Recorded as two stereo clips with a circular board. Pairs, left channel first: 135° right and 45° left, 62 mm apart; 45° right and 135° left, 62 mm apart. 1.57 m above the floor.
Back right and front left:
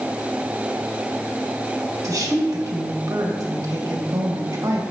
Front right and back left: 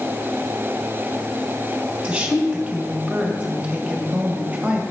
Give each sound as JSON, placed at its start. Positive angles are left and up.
{"t": 2.0, "sound": "a woman speaking", "azimuth_deg": 65, "distance_m": 1.8}